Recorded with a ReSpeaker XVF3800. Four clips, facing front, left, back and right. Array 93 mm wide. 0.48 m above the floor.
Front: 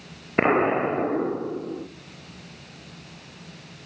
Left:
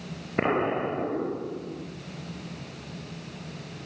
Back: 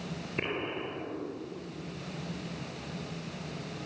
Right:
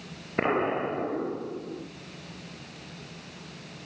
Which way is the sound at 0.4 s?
5° left.